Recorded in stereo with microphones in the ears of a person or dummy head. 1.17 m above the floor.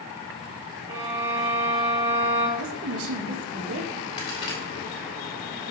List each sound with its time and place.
0.9 s a violin: 25° right (ahead or behind), 3.5 m
2.6 s a woman speaking: 70° right (ahead or behind), 1.8 m
4.2 s a crack: 25° left (ahead or behind), 3 m